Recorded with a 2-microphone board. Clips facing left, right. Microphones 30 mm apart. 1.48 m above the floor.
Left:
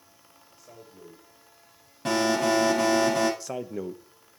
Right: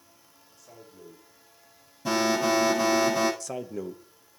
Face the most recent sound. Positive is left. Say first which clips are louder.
# left 1 dB
turn(degrees=15)  # may be behind; listen again after turning